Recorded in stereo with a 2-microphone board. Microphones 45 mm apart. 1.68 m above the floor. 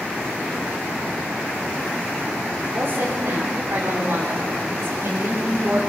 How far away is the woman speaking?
About 4 m.